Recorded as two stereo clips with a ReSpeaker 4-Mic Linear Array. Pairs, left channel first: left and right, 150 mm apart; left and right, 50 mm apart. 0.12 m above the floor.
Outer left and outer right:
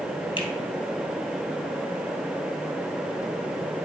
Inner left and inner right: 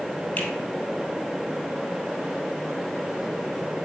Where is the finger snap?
30° left (ahead or behind), 2 m.